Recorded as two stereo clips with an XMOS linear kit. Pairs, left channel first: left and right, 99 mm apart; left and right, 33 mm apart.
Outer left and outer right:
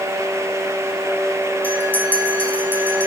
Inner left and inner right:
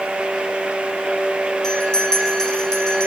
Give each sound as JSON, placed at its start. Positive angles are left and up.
{"t": 1.6, "sound": "a bell", "side_deg": 15, "distance_m": 6.0}